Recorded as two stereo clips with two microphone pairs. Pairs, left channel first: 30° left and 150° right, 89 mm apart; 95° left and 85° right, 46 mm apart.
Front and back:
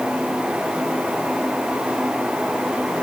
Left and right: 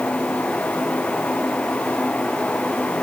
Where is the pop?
No pop in this recording.